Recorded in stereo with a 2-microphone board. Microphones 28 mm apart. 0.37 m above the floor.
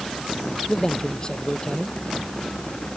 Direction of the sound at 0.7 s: 25° left (ahead or behind).